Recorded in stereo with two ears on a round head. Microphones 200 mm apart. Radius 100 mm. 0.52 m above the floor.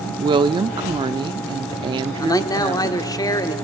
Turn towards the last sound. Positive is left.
turn(degrees=15)  # may be behind; listen again after turning